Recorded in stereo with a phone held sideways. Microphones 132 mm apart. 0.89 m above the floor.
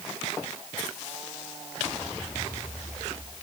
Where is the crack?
No crack in this recording.